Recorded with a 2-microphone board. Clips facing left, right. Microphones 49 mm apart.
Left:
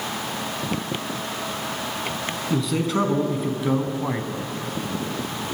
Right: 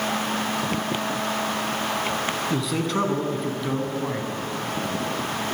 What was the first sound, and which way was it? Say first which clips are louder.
A man speaking: left 6 dB; centre (ahead or behind).